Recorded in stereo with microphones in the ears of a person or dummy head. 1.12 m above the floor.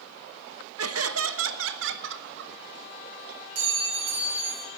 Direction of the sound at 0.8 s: 70° right (ahead or behind).